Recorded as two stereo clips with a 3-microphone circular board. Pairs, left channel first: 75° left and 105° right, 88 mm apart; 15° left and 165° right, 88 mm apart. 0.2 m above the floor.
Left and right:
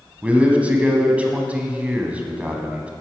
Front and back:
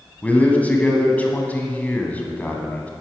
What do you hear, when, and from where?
0.2 s a man speaking: 45° right, 1.3 m